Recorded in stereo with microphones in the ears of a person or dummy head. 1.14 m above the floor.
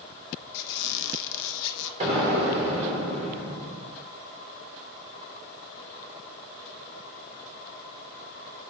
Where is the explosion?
35° right (ahead or behind), 3.5 m.